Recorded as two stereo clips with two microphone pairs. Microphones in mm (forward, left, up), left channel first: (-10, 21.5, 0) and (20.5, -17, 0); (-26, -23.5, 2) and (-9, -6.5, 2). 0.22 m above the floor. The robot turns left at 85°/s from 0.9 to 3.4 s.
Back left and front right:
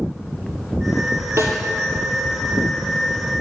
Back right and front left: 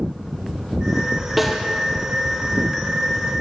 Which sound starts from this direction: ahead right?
A snare drum, at 1.4 s.